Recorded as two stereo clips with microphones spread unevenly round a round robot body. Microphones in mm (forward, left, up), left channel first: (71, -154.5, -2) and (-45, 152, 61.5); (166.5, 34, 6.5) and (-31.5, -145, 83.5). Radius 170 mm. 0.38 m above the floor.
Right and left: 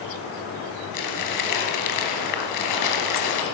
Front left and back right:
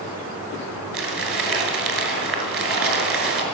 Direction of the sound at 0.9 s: 100° right.